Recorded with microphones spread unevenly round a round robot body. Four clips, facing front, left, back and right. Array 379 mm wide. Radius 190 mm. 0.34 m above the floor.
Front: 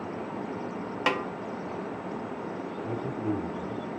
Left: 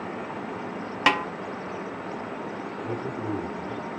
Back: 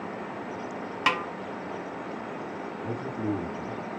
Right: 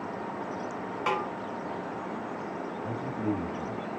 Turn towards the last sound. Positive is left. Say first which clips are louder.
# left 1 dB, even
turn(degrees=-150)